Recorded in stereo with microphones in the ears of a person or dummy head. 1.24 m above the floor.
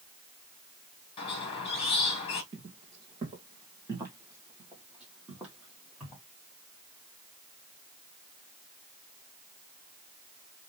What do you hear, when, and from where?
1.2 s a squeak: 40° left (ahead or behind), 1.3 m
2.5 s footsteps: 30° right (ahead or behind), 1.7 m; by 6.2 s 5° left (ahead or behind), 3 m